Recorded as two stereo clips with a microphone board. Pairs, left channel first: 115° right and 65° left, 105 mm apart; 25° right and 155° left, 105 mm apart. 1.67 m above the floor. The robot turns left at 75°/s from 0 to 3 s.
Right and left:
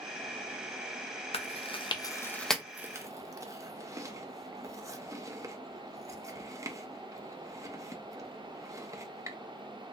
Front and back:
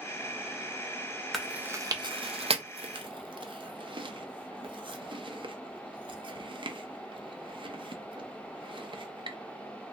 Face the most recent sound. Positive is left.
turn(degrees=125)